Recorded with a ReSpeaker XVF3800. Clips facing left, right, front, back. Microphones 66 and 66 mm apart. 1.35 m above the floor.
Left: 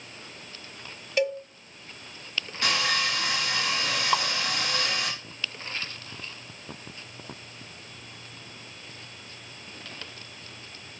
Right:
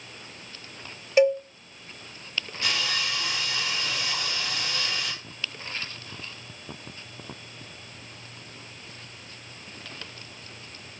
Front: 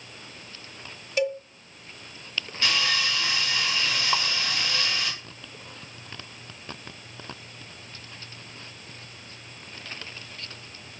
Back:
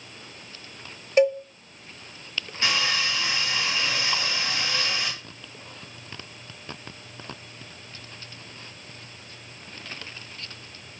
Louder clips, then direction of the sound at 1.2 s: Right 7 dB, back 7 dB; 150° right.